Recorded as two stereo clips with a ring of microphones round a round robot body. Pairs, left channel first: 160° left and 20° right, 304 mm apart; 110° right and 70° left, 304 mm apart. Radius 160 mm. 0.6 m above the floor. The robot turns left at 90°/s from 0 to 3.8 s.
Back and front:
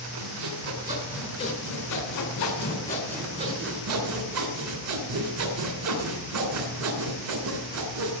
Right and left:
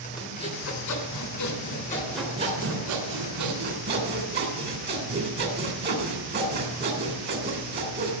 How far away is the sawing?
About 3 m.